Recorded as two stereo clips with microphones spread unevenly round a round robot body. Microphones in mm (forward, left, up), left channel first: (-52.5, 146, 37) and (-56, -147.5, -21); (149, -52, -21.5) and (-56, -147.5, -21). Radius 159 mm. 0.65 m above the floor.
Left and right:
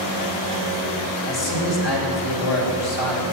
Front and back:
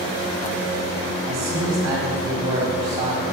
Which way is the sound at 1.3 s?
125° left.